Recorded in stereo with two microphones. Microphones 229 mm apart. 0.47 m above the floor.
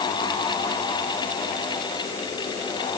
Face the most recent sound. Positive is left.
No sound to turn to.